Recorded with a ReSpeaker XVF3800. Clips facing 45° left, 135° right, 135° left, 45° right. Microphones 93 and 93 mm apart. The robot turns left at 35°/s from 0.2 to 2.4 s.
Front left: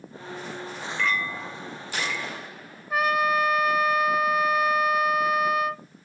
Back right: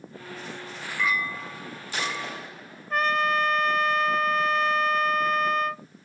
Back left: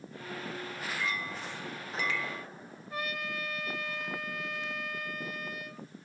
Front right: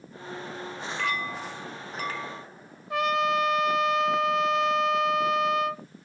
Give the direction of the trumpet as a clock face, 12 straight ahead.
1 o'clock.